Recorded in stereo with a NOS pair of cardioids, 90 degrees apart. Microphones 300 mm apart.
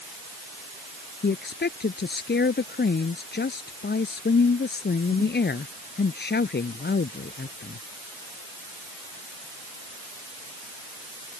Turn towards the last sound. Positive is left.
turn(degrees=35)